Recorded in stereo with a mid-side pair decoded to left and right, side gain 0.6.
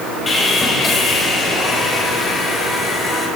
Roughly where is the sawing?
Ahead left.